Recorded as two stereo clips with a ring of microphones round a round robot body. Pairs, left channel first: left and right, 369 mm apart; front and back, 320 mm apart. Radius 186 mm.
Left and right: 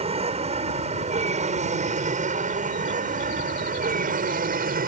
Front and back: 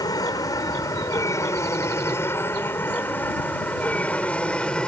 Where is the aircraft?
55° right; by 4.9 s 85° right.